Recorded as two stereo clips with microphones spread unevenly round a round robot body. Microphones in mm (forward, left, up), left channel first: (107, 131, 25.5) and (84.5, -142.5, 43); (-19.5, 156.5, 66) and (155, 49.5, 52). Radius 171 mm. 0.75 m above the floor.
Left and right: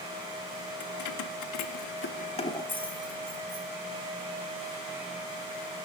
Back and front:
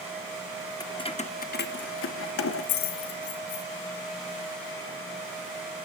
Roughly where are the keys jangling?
Left.